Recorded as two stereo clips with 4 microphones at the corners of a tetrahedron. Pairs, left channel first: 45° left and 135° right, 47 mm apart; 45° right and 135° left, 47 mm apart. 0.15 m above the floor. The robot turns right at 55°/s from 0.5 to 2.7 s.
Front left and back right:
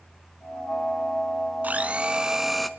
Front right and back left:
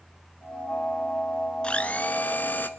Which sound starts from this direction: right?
A blender, at 1.6 s.